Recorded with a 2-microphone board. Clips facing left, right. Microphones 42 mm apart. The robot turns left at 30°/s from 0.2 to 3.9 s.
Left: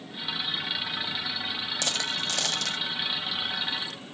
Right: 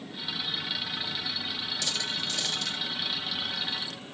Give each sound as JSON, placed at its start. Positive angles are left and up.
{"t": 1.8, "sound": "a dropped coin", "side_deg": 60, "distance_m": 0.7}